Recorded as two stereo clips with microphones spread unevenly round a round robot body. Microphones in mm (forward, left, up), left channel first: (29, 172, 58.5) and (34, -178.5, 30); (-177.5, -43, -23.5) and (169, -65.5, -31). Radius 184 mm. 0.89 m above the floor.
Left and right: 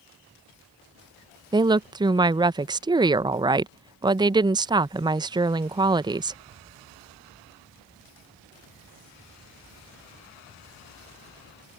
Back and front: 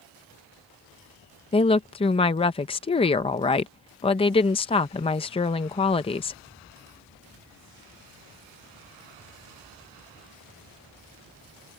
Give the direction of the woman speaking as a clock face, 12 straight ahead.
4 o'clock.